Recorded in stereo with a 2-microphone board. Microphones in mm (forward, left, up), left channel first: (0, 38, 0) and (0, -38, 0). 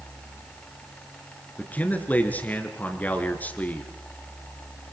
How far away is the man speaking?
About 4 m.